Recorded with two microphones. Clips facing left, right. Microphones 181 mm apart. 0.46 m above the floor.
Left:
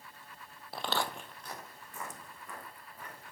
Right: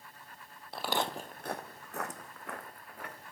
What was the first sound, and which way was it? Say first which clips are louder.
Footsteps: right 2 dB; 5° left (ahead or behind).